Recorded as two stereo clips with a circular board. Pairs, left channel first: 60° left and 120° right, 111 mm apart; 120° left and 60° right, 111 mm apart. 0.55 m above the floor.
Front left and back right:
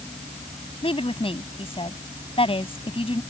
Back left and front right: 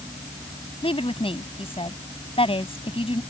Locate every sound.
0.8 s a woman speaking: 90° left